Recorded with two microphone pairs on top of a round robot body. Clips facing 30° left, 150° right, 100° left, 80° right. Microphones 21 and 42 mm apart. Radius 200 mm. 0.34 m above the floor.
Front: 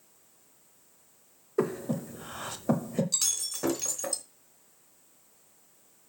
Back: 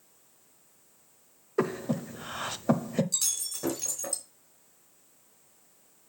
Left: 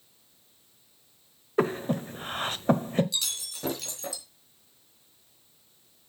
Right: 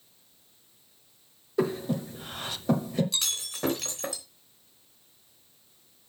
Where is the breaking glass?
35° right, 3.5 m.